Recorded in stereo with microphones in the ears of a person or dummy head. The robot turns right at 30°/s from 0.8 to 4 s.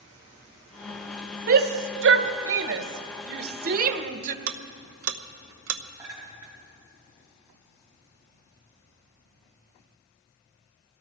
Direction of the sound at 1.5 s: 50° right (ahead or behind).